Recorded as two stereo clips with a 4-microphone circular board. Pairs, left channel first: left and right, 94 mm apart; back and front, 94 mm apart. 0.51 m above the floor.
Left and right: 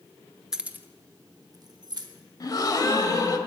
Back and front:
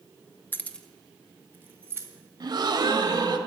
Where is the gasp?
40° left, 0.9 m.